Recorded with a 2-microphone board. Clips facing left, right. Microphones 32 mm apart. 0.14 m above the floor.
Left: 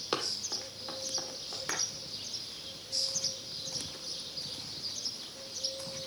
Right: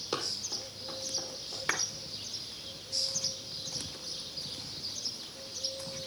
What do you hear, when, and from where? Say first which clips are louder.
0.1 s running footsteps: left 1 dB; 45° left (ahead or behind), 2.0 m; by 1.6 s 55° left (ahead or behind), 3 m
1.7 s a clap: right 5 dB; 35° right (ahead or behind), 1.6 m